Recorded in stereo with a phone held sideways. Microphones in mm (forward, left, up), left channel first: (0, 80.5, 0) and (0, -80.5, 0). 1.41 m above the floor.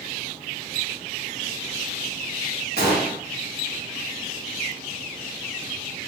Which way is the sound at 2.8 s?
85° left.